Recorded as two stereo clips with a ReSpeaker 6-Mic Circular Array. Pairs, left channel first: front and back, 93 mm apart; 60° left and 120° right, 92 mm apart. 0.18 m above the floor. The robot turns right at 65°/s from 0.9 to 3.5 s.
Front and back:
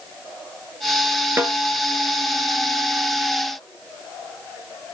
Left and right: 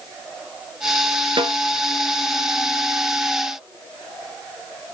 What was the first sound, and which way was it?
A snare drum, 115° right.